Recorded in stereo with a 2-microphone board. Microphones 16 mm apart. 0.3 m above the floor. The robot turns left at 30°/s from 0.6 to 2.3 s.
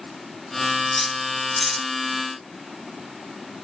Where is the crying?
I don't hear crying.